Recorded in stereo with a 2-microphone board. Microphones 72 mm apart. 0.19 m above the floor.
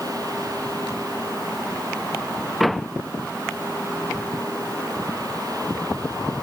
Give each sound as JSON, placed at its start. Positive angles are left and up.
{"t": 2.6, "sound": "a door slam", "side_deg": 0}